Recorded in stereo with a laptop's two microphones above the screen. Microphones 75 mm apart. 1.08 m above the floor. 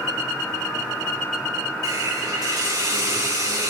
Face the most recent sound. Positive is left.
turn(degrees=-65)  # may be behind; listen again after turning